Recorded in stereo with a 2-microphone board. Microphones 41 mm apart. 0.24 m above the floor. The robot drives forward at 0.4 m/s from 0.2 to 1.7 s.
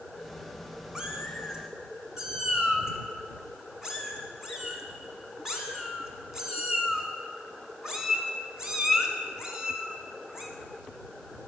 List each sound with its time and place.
0.9 s a cat meowing: 20° right (ahead or behind), 1.1 m; by 10.5 s 15° right (ahead or behind), 1.4 m